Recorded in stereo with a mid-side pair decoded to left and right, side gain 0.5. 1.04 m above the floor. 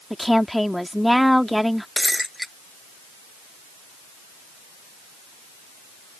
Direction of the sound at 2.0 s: Straight ahead.